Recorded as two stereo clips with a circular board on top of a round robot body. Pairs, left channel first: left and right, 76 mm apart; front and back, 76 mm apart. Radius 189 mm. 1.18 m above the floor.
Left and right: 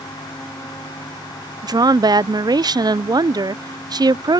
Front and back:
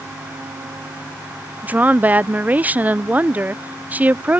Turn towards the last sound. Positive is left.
turn(degrees=-110)